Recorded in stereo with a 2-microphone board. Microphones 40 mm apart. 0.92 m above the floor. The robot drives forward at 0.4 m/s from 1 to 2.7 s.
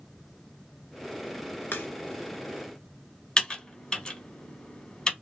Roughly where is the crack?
Left.